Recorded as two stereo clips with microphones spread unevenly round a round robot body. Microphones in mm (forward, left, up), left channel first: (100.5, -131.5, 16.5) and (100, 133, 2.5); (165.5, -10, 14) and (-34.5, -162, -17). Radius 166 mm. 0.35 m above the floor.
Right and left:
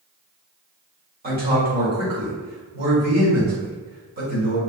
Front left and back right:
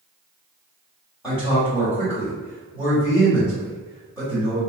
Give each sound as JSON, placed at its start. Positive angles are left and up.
{"t": 1.2, "sound": "a man speaking", "azimuth_deg": 120, "distance_m": 1.7}